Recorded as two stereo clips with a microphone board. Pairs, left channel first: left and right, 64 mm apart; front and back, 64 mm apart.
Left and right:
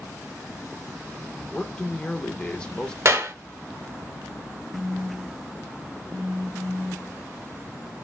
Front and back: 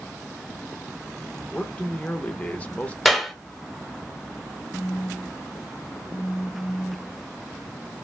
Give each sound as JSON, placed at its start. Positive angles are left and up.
{"t": 1.5, "sound": "a man speaking", "azimuth_deg": 30, "distance_m": 0.8}
{"t": 3.0, "sound": "a clap", "azimuth_deg": -85, "distance_m": 1.0}
{"t": 4.7, "sound": "a phone buzzing", "azimuth_deg": -55, "distance_m": 0.5}